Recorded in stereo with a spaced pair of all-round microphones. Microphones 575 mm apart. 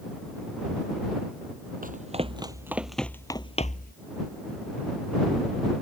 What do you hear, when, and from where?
1.8 s running footsteps: 15° right (ahead or behind); by 3.9 s 15° left (ahead or behind)